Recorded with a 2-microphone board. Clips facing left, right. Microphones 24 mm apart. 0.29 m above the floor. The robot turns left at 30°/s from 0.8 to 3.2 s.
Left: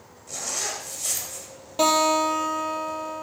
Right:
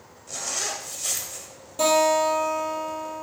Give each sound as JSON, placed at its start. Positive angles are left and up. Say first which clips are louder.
{"t": 0.3, "sound": "a zipper", "louder": "right 1 dB", "side_deg": -5, "distance_m": 1.3}
{"t": 1.8, "sound": "a guitar", "louder": "even", "azimuth_deg": 150, "distance_m": 3.0}